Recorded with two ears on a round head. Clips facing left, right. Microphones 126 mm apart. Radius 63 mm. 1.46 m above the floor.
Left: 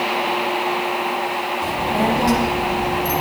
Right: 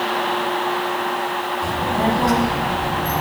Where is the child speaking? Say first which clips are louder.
Left 1 dB; 20° left (ahead or behind), 2.5 m; by 3.2 s 30° left (ahead or behind), 1.4 m.